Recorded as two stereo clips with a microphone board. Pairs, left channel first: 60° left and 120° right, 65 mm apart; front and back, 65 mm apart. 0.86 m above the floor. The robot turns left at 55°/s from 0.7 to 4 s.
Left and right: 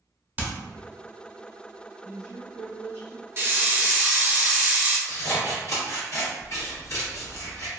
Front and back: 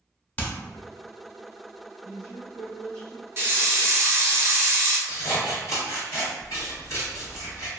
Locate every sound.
0.4 s hammering: 65° right, 0.8 m
2.0 s a woman speaking: 10° right, 0.8 m; by 3.3 s 75° right, 0.8 m
3.4 s a hiss: 150° right, 0.7 m; by 5.0 s 175° left, 0.7 m
5.1 s scissors: 30° left, 1.5 m